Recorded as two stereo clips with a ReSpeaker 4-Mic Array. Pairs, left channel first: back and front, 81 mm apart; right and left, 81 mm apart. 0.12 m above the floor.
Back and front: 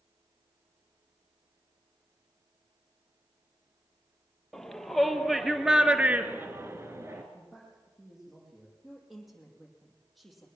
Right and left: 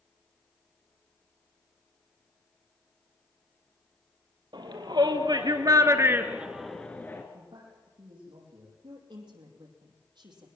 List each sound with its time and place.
4.5 s a shout: 95° left, 3.5 m; by 7.2 s 40° right, 1.9 m
7.3 s a man speaking: 85° left, 6 m
8.8 s a woman speaking: 90° left, 5 m